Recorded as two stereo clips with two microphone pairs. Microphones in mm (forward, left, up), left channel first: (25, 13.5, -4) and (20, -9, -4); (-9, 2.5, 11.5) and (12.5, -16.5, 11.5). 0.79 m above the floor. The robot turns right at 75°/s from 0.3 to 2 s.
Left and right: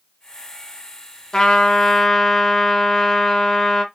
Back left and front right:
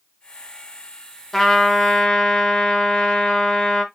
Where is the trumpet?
60° left, 1.0 m; by 3.8 s 110° left, 1.0 m.